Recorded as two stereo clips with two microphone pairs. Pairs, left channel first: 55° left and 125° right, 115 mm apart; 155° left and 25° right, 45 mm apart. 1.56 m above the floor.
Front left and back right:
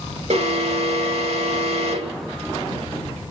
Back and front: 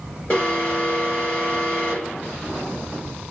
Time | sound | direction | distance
0.3 | an alarm | 140° right | 2.5 m